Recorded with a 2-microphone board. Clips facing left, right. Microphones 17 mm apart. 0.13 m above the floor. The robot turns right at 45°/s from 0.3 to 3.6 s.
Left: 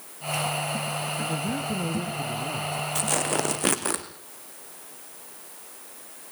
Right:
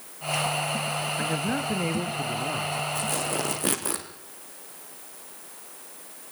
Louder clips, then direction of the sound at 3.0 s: Left 2 dB; 50° left (ahead or behind).